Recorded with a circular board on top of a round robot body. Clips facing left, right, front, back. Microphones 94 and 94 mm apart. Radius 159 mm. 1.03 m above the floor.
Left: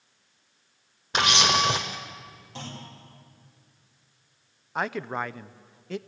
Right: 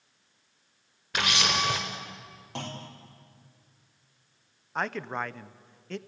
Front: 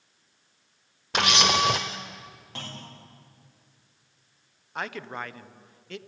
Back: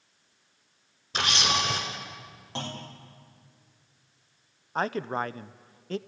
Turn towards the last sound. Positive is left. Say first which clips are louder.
# left 2 dB, back 6 dB
turn(degrees=170)